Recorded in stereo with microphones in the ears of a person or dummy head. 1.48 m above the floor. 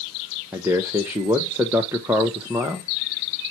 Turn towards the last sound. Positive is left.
turn(degrees=-5)  # may be behind; listen again after turning